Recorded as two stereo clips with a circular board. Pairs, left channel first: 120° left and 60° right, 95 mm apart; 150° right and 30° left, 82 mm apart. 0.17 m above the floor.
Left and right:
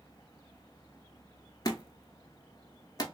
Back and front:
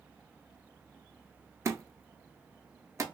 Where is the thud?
80° left, 0.6 m.